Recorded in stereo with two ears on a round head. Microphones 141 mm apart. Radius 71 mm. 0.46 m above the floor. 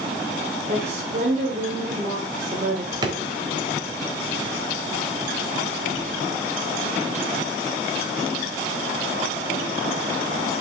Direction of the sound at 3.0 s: 25° right (ahead or behind).